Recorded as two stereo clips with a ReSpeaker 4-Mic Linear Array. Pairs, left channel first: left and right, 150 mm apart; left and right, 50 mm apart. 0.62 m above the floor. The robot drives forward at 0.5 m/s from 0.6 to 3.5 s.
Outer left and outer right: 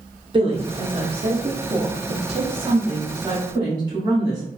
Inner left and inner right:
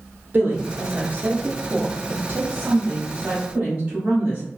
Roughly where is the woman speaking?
Right.